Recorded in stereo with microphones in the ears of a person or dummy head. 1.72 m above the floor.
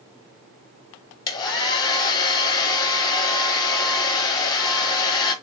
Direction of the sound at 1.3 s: 25° left (ahead or behind).